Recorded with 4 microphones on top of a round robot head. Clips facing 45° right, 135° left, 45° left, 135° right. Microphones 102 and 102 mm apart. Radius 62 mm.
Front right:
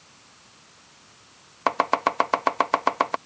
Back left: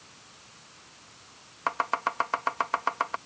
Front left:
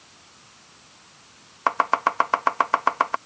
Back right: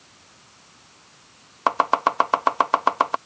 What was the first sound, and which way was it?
Chopping, 70° right.